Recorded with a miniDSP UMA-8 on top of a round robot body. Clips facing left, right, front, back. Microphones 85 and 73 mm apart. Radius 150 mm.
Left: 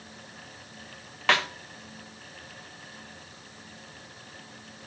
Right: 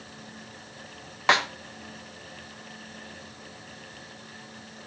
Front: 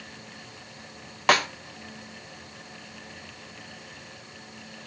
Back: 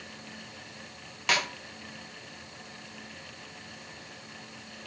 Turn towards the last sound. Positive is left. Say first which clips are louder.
# right 2 dB, front 7 dB
turn(degrees=-25)